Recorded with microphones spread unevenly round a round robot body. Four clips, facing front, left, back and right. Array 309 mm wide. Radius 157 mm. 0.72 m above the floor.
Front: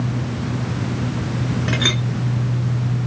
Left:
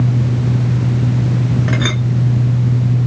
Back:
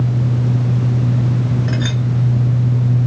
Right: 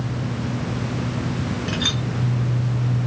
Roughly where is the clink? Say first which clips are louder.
Left 7 dB, back 1 dB; ahead left.